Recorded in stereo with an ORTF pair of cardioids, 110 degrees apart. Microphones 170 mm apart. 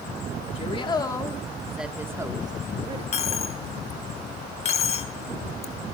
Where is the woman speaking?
35° left, 2.5 m; by 3.0 s 35° right, 3 m.